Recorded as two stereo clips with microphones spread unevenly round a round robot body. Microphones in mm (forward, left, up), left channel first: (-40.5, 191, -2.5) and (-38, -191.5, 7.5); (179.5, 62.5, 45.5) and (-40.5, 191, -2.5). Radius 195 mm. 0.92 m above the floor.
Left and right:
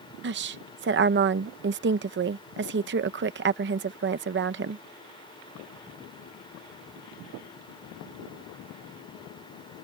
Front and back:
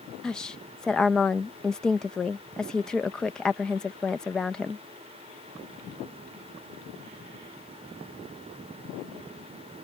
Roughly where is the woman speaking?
Behind right.